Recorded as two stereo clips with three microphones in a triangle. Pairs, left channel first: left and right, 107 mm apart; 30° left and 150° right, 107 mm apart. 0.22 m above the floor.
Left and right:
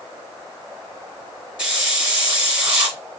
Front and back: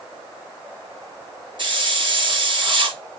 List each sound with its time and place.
1.6 s a hiss: 170° right, 2 m